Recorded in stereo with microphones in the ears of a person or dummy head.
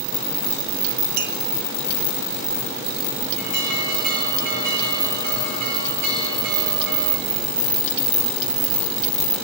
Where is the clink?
50° right (ahead or behind), 0.9 m.